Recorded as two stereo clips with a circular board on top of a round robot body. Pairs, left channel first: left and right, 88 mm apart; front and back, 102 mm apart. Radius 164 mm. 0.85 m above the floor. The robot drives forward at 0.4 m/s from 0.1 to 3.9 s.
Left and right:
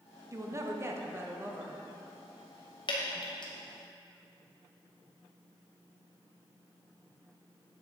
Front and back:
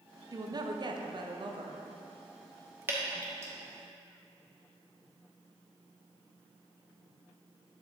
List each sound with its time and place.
0.3 s a woman speaking: 140° right, 1.1 m; by 1.8 s 155° right, 1.6 m
2.9 s dripping: 110° left, 2 m; by 3.5 s 120° left, 2.5 m